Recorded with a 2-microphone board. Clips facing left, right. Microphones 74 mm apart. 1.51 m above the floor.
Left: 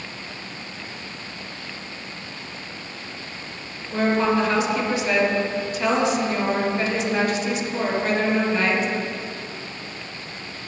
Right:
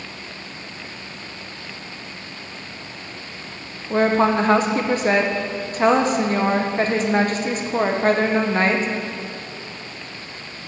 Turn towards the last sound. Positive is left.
turn(degrees=-40)  # may be behind; listen again after turning